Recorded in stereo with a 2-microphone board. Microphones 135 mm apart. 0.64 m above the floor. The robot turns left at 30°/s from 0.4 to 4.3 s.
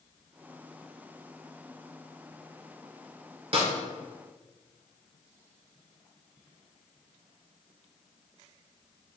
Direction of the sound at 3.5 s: 45° right (ahead or behind).